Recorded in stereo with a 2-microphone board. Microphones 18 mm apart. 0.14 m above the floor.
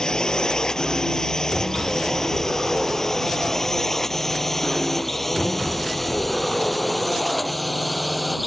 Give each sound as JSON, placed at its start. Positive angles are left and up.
{"t": 0.0, "sound": "a drone", "side_deg": 45}